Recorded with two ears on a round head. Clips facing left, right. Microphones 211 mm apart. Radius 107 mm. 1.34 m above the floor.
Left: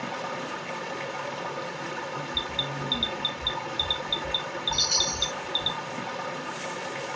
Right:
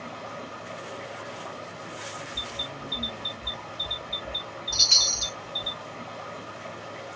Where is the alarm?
75° left (ahead or behind), 2.0 m.